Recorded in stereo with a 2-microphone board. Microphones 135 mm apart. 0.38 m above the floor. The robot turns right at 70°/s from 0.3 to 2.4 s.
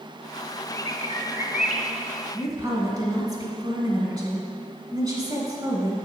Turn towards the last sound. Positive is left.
turn(degrees=-35)  # may be behind; listen again after turning